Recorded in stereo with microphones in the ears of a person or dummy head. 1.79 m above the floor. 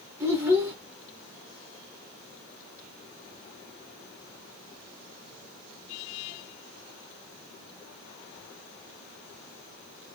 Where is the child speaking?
5° right (ahead or behind), 0.8 m.